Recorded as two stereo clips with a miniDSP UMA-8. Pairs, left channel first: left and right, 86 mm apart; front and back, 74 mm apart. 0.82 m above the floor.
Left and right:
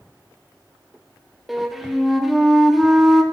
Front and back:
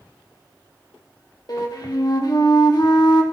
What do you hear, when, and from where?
1.5 s a flute: 5° right, 1.8 m